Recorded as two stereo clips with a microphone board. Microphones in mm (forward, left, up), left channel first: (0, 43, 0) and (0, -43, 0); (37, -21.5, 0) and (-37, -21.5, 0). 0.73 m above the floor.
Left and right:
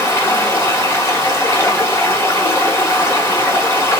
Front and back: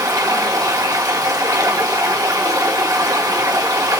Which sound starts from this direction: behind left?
Running water, at 0.0 s.